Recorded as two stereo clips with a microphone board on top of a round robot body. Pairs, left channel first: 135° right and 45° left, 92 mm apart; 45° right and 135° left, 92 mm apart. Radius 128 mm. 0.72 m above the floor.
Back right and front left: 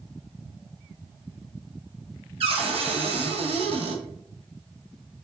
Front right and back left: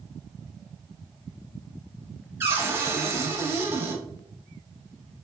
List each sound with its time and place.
2.4 s a cupboard door: 65° left, 0.9 m